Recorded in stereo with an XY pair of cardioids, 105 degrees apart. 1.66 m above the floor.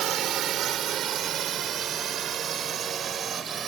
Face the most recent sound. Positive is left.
turn(degrees=-50)